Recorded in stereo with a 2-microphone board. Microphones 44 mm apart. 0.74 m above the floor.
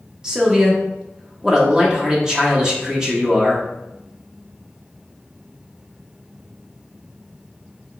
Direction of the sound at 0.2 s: 15° right (ahead or behind).